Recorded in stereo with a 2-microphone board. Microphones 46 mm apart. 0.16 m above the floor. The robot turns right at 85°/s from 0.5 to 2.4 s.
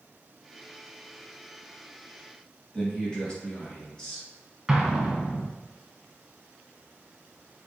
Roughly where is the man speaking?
Centre.